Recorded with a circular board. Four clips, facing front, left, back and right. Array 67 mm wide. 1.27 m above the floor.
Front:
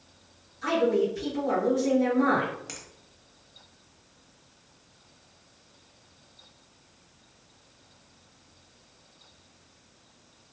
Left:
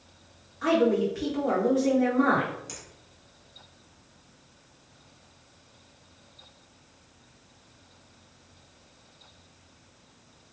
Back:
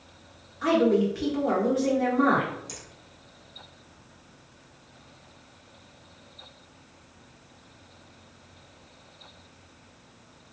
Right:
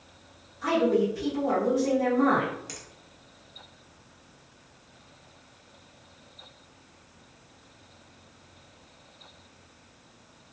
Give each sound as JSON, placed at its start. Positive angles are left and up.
{"t": 0.6, "sound": "a woman speaking", "azimuth_deg": 150, "distance_m": 1.6}
{"t": 2.7, "sound": "a finger snap", "azimuth_deg": -15, "distance_m": 1.0}